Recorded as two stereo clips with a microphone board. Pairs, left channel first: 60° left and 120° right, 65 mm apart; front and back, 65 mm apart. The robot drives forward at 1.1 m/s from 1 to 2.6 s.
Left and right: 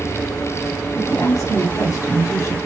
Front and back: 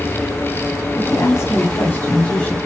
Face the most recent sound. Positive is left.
turn(degrees=75)